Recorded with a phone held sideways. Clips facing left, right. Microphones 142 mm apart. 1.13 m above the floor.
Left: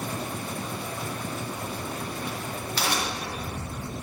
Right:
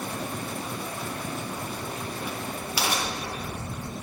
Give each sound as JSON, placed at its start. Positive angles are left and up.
{"t": 1.5, "sound": "a crack", "side_deg": -10, "distance_m": 1.9}